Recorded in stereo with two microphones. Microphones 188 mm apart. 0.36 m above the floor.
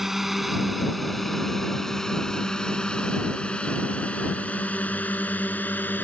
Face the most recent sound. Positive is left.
turn(degrees=10)  # may be behind; listen again after turning